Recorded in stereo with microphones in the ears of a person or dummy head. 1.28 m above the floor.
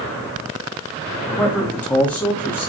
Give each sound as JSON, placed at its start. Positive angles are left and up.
{"t": 1.3, "sound": "a man speaking", "side_deg": 5, "distance_m": 2.0}